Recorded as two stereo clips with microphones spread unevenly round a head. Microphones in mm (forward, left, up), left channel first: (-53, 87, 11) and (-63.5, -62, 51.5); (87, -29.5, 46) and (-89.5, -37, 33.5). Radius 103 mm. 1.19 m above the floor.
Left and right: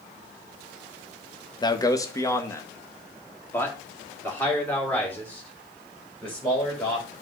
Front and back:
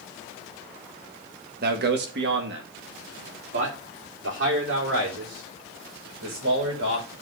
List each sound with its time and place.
1.6 s a man speaking: 145° left, 1.2 m; by 7.1 s 170° left, 6 m